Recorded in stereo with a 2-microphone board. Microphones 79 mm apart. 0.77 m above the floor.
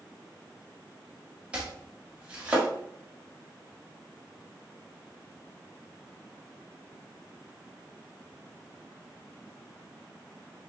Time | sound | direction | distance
1.5 | chopping | 15° right (ahead or behind) | 1.2 m